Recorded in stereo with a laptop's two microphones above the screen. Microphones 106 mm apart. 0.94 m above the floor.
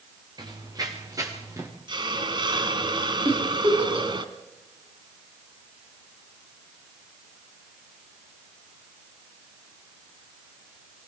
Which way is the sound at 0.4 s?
40° right (ahead or behind).